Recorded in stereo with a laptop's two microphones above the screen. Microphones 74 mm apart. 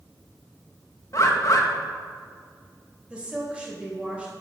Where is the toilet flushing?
No toilet flushing in this recording.